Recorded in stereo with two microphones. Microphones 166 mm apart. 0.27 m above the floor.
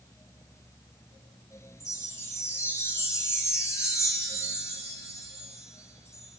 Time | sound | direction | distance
1.8 | a chime | 15° left (ahead or behind) | 1.3 m